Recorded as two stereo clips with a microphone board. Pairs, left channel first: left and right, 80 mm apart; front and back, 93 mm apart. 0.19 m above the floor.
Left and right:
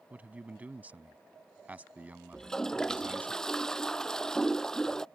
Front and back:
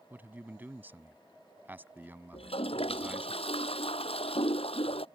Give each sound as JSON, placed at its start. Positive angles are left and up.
{"t": 0.1, "sound": "a man speaking", "azimuth_deg": -135}
{"t": 2.3, "sound": "a toilet flushing", "azimuth_deg": 5}